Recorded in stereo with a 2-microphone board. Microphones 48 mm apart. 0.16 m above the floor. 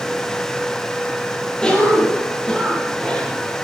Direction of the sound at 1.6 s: 20° left (ahead or behind).